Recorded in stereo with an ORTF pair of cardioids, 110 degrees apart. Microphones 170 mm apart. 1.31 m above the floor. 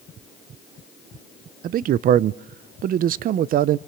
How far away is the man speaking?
About 0.6 m.